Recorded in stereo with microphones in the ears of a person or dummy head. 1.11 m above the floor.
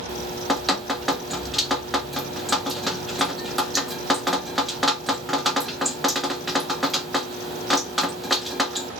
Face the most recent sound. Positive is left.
turn(degrees=0)  # may be behind; listen again after turning